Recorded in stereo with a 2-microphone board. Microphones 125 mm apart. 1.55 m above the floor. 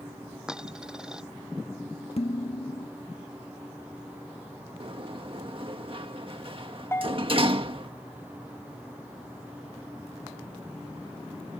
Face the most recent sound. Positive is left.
turn(degrees=20)  # may be behind; listen again after turning